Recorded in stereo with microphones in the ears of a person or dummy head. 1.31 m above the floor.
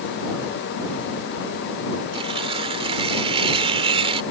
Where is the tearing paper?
30° right (ahead or behind).